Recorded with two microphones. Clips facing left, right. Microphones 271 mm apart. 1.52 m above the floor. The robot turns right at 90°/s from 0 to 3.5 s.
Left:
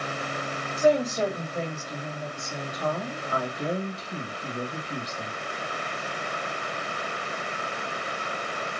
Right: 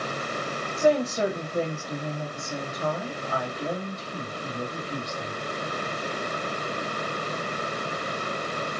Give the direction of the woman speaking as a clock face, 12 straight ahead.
7 o'clock.